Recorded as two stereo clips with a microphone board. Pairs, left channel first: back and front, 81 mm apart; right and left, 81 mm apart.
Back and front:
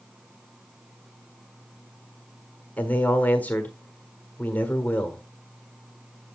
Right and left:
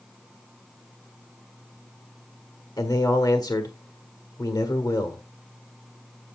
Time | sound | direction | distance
2.8 | a man speaking | 110° right | 1.3 m